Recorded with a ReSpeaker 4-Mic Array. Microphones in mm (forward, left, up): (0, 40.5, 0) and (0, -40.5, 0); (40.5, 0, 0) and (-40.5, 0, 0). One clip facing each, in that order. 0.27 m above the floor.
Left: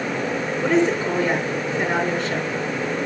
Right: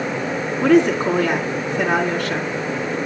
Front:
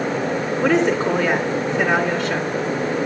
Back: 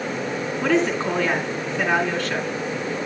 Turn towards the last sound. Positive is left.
turn(degrees=-85)